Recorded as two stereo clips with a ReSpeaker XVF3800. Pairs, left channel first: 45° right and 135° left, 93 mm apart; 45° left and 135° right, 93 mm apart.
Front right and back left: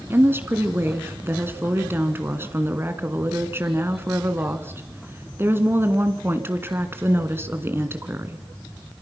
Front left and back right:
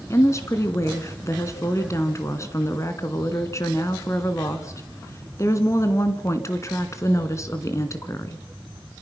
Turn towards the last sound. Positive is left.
turn(degrees=80)